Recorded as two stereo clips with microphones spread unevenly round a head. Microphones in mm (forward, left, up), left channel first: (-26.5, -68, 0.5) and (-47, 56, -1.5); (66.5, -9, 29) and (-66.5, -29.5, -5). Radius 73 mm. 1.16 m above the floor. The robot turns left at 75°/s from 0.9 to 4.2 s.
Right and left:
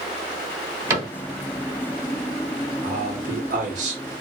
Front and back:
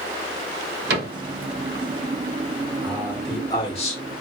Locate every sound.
0.9 s a cupboard door: 170° left, 1.5 m; by 1.1 s 150° left, 1.5 m
2.8 s a man speaking: 135° left, 1.0 m; by 4.0 s 45° left, 1.0 m